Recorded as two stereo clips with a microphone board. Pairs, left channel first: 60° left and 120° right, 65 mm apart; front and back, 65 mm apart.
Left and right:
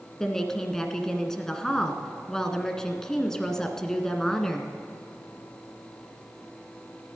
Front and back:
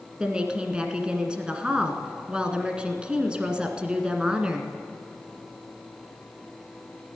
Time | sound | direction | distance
0.2 | a woman speaking | 130° left | 1.4 m